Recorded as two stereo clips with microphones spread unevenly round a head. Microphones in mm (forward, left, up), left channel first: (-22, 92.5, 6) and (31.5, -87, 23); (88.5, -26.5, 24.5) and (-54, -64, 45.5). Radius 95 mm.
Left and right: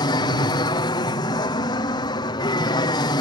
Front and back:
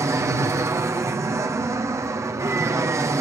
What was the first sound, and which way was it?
An aircraft, 130° left.